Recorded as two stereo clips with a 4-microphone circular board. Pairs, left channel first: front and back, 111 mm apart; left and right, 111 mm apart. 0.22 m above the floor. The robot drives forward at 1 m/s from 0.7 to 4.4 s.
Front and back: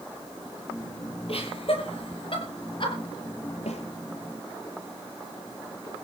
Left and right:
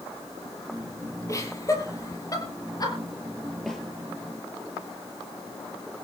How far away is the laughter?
About 6.5 m.